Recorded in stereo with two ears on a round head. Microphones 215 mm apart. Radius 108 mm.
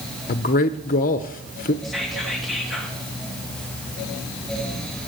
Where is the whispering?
Centre (ahead or behind), 3 m.